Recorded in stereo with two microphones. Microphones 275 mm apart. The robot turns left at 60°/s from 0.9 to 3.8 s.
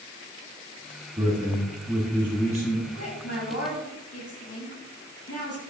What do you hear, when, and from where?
1.2 s a man speaking: 20° right (ahead or behind), 1.7 m; by 2.8 s 15° left (ahead or behind), 1.7 m
2.9 s a woman speaking: 55° left (ahead or behind), 3 m; by 5.6 s 60° left (ahead or behind), 3 m